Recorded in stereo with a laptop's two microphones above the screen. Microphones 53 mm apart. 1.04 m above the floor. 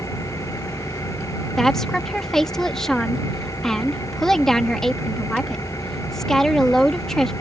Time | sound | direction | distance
0.0 | an engine running | 80° left | ?
1.6 | a woman speaking | 10° left (ahead or behind) | ?